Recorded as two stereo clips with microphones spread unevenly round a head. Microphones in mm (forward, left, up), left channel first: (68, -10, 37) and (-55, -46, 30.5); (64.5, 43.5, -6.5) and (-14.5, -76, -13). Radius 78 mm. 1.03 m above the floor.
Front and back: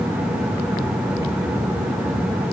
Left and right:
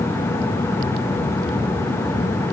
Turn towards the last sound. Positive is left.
No sound to turn to.